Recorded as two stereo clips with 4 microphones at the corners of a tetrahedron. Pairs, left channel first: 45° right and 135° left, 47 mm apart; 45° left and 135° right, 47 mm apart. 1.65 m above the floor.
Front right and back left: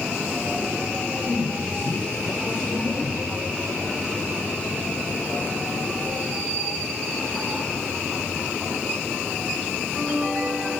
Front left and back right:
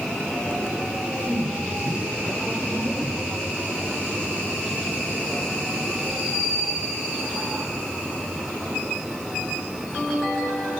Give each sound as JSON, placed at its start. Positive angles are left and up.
{"t": 1.0, "sound": "a man speaking", "azimuth_deg": -65, "distance_m": 8.5}